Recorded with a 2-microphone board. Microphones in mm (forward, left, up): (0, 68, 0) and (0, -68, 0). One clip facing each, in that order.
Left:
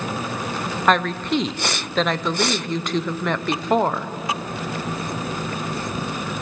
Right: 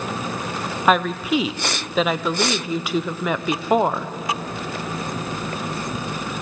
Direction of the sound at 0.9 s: 5° right (ahead or behind).